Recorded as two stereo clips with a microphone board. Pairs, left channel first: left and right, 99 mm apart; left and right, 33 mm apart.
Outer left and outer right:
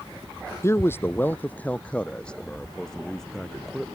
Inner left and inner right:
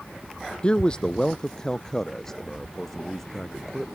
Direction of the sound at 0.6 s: 25° left (ahead or behind).